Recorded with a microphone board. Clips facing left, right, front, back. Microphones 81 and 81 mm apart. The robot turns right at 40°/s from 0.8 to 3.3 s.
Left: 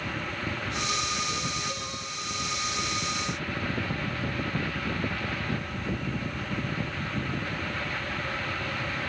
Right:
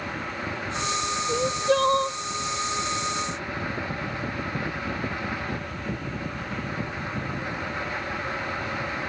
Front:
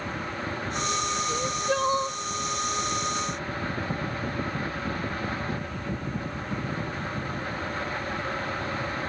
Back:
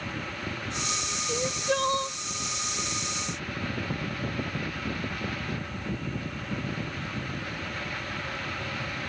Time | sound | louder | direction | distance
1.3 | crying | right 11 dB, back 2 dB | 105° right | ?